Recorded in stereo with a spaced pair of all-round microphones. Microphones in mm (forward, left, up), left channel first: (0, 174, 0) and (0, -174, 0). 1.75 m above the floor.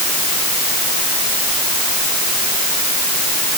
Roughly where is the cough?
No cough in this recording.